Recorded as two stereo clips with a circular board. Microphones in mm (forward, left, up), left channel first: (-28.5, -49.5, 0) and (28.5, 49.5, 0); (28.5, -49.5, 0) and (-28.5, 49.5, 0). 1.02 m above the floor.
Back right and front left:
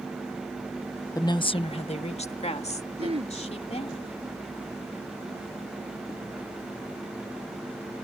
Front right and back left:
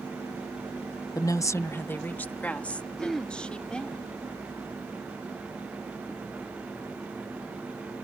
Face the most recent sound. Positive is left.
turn(degrees=25)